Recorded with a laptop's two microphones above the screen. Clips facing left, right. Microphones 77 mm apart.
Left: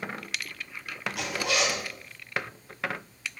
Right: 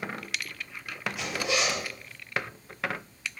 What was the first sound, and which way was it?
A zipper, 75° left (ahead or behind).